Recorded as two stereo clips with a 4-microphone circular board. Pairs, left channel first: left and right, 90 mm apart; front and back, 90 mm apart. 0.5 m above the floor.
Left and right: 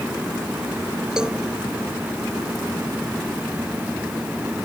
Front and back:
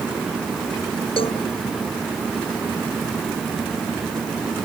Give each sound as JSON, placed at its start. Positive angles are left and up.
{"t": 1.2, "sound": "a cowbell", "azimuth_deg": -10}